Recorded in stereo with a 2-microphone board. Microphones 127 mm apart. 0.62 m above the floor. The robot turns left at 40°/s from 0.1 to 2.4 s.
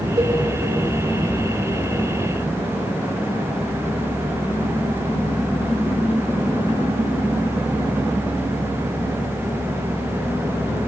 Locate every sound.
0.2 s a cowbell: 40° right (ahead or behind), 2.5 m; by 0.4 s 30° right (ahead or behind), 2.5 m